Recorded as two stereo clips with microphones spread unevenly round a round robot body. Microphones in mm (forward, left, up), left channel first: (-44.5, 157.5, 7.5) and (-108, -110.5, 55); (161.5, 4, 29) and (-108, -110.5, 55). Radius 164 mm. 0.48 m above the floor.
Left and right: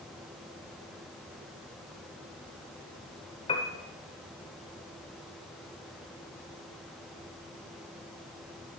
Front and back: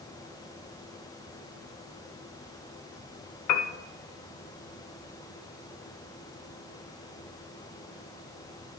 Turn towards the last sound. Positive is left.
turn(degrees=10)